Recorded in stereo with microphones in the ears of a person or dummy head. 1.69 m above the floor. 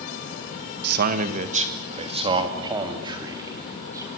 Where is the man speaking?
55° right (ahead or behind), 1.6 m; by 4.1 s 15° right (ahead or behind), 4.5 m.